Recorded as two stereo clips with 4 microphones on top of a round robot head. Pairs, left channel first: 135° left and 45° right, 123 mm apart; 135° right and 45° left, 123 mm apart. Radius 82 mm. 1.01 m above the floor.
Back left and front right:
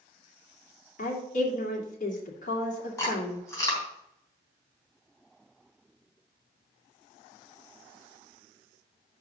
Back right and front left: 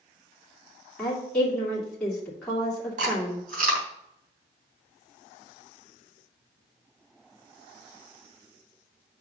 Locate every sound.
1.0 s a woman speaking: 140° left, 2 m
3.0 s chewing: 70° left, 3 m